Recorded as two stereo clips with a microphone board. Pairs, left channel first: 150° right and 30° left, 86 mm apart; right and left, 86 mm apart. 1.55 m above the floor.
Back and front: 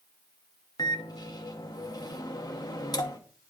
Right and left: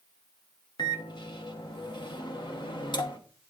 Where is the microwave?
110° right, 1.1 m.